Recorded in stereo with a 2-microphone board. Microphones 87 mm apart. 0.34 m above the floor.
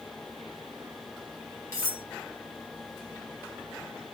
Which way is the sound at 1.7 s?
35° left (ahead or behind).